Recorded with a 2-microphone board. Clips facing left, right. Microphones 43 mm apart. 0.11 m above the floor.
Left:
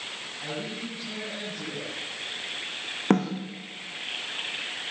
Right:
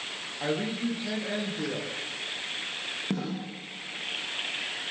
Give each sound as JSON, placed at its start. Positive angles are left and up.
{"t": 0.4, "sound": "a woman speaking", "side_deg": -45, "distance_m": 10.0}
{"t": 3.1, "sound": "a snare drum", "side_deg": 60, "distance_m": 8.5}